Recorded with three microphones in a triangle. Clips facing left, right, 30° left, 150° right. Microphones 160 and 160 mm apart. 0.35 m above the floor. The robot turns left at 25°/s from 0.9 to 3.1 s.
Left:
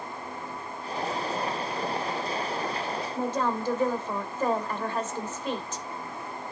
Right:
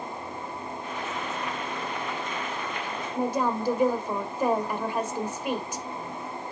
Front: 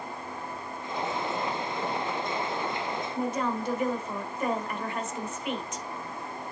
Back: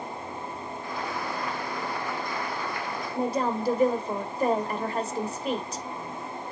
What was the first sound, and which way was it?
A woman speaking, 160° right.